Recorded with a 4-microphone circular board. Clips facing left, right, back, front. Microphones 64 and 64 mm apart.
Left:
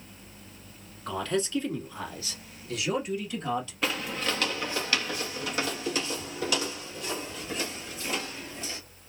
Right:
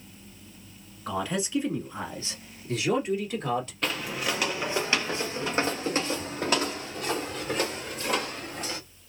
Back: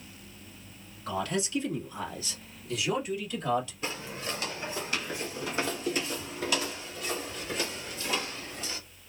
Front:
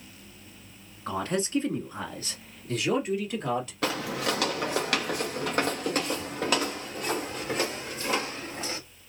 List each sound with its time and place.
1.1 s a man speaking: 10° right, 1.5 m; by 3.7 s 40° right, 3 m
3.8 s footsteps: 5° left, 0.8 m; by 8.8 s 50° right, 3 m